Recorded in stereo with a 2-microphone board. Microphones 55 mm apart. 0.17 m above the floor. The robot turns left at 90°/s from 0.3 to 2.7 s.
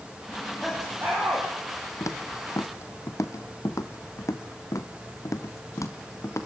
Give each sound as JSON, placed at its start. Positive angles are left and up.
{"t": 0.3, "sound": "laughter", "azimuth_deg": 30, "distance_m": 8.5}
{"t": 2.0, "sound": "footsteps", "side_deg": 70, "distance_m": 2.0}